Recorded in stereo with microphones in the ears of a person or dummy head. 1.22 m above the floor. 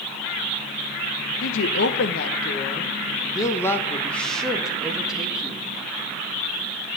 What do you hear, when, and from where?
1.4 s a woman speaking: 70° left (ahead or behind), 1.3 m; by 5.7 s 5° right (ahead or behind), 2 m